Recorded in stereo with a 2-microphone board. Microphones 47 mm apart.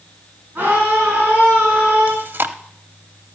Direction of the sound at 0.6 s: 45° right (ahead or behind).